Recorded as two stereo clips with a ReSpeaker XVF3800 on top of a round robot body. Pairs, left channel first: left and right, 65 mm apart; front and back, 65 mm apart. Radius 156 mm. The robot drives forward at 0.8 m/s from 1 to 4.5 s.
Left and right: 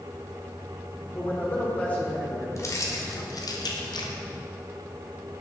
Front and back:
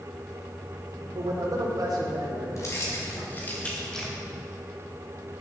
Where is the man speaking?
150° left, 2 m; by 2.5 s 160° left, 3 m.